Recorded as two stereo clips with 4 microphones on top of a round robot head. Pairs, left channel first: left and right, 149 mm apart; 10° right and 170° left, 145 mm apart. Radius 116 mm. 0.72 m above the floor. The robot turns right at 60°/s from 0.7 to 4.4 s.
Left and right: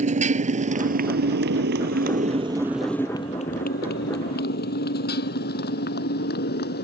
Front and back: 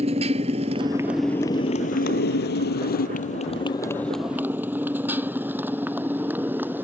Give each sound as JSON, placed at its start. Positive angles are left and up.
{"t": 0.0, "sound": "a motorcycle", "azimuth_deg": -130}